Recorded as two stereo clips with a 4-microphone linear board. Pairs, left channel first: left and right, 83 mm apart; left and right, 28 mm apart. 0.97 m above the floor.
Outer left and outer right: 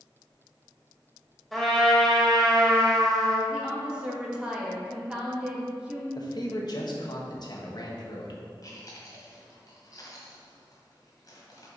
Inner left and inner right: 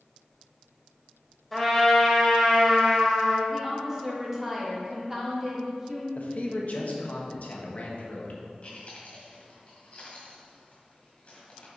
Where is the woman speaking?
10° right (ahead or behind), 1.6 m.